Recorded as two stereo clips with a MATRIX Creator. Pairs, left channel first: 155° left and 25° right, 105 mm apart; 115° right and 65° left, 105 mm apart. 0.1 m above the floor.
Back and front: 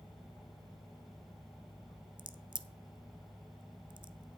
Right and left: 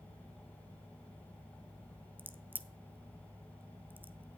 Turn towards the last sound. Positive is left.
turn(degrees=0)